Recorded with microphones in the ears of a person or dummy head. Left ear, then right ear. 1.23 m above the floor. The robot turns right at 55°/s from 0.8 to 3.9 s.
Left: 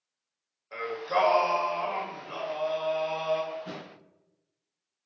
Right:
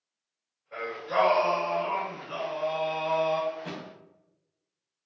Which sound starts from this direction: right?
A thud, at 3.5 s.